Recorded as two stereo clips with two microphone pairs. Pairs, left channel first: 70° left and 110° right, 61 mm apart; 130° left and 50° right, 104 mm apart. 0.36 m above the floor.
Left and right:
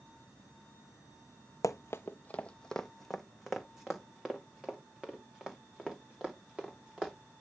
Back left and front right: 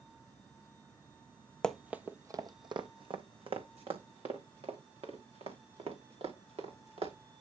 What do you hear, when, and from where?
1.6 s running footsteps: 50° left, 0.6 m; by 7.1 s 35° right, 4.5 m